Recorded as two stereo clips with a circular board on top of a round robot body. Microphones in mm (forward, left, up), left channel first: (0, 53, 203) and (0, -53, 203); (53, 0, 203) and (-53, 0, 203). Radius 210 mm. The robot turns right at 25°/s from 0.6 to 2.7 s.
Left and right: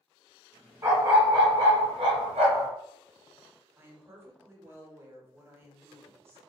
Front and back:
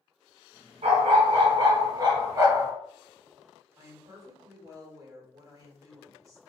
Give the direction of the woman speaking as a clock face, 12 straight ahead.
5 o'clock.